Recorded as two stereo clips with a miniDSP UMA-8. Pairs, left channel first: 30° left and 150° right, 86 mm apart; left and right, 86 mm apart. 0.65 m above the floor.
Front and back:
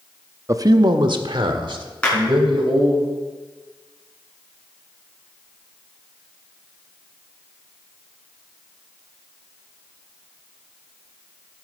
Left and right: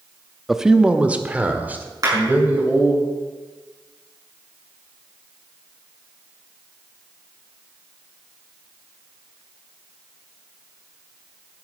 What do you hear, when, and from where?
0.5 s a man speaking: 175° right, 0.6 m; by 3.0 s 155° right, 3.5 m
2.0 s a clap: 45° right, 6 m